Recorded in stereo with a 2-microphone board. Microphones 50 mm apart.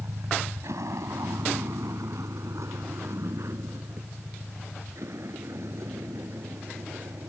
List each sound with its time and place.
0.0 s a vehicle: 80° right; by 7.3 s 65° right (ahead or behind)